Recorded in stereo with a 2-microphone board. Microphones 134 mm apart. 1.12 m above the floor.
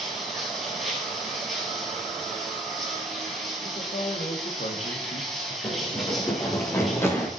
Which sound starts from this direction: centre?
Running water, at 0.0 s.